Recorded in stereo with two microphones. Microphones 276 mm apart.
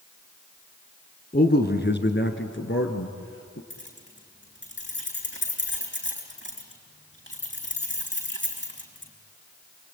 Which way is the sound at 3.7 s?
40° left (ahead or behind).